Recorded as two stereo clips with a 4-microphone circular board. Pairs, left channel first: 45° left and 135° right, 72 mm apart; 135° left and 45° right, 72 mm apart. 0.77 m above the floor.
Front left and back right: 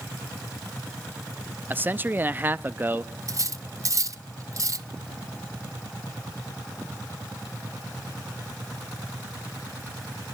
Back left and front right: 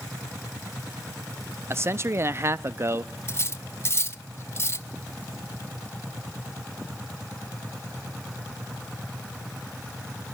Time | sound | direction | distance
1.7 | a man speaking | 85° right | 0.6 m
3.3 | cutlery clinking | 175° right | 0.6 m